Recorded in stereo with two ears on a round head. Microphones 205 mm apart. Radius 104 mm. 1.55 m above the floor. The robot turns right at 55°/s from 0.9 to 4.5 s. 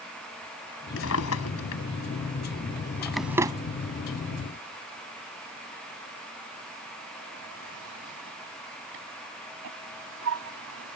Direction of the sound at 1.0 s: 55° left (ahead or behind).